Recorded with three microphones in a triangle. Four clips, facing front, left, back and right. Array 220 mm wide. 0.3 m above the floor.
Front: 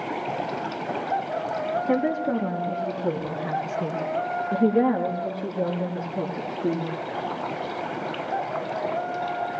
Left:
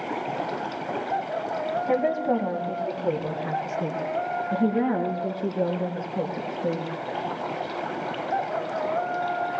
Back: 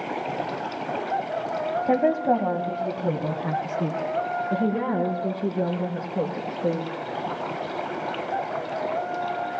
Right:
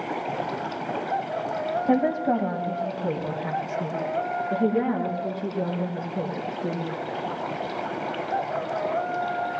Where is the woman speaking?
155° right, 1.5 m; by 6.9 s 170° left, 5.5 m.